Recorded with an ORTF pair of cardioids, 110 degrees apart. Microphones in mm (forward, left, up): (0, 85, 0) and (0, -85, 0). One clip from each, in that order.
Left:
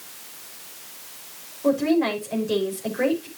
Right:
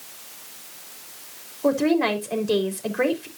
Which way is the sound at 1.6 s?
40° right.